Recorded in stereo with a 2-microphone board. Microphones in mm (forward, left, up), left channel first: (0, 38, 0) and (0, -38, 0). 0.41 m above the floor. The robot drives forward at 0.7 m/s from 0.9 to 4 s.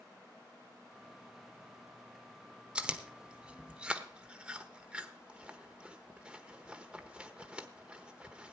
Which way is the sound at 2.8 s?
15° right (ahead or behind).